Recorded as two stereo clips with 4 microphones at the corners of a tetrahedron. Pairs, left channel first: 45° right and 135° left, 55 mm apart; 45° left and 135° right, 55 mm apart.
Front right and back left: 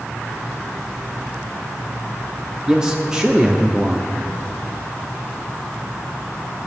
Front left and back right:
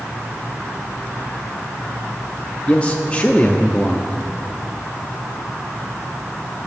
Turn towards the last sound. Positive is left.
turn(degrees=75)